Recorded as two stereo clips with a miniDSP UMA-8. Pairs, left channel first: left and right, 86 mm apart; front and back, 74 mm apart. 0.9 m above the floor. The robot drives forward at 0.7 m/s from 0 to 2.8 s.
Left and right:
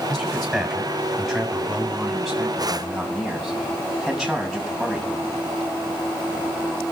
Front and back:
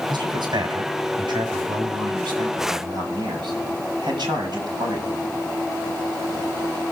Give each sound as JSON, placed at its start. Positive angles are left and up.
{"t": 0.1, "sound": "a man speaking", "azimuth_deg": 175, "distance_m": 4.5}